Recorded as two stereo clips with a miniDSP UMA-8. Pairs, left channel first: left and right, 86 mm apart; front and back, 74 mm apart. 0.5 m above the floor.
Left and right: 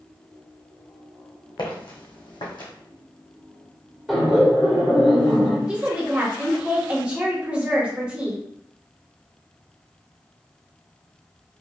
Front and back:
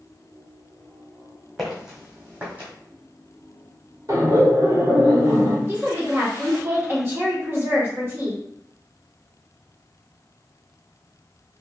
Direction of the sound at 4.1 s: 175° right.